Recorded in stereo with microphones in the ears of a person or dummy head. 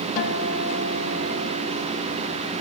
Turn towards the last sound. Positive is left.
turn(degrees=45)  # may be behind; listen again after turning